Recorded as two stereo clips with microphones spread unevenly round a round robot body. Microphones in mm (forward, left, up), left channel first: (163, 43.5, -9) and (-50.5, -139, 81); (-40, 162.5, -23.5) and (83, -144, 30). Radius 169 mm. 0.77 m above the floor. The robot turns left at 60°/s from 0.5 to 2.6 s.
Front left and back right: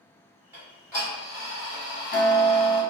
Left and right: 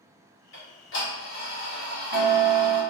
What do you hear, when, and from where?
0.5 s ticking: 125° left, 1.1 m; by 2.8 s straight ahead, 1.1 m